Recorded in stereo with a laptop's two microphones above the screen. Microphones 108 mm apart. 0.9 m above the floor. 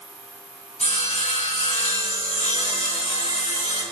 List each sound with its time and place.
0.8 s sawing: 80° left, 3.5 m